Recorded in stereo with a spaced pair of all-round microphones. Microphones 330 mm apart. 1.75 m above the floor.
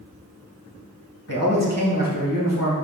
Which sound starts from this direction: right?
A man speaking, at 1.3 s.